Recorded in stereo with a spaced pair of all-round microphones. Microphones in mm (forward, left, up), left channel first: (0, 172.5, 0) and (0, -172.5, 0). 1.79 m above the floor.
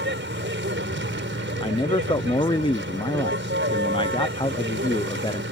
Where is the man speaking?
15° left (ahead or behind).